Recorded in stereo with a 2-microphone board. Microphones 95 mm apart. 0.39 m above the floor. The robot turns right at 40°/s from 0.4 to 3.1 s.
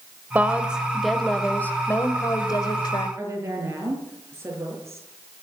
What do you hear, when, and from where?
0.3 s a woman speaking: 25° right, 1.8 m; by 3.1 s 85° left, 1.8 m
3.2 s a woman speaking: 30° right (ahead or behind), 6.5 m